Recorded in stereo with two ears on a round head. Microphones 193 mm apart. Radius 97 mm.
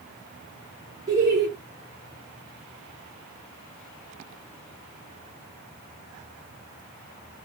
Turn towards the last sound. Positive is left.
turn(degrees=-20)  # may be behind; listen again after turning